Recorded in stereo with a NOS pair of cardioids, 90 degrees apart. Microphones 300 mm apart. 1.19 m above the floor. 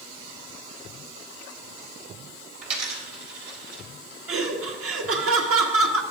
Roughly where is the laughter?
Ahead right.